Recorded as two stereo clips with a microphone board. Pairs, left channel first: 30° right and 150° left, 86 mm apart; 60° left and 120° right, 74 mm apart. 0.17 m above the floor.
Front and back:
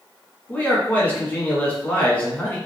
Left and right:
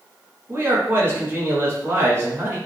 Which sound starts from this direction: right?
A man speaking, at 0.5 s.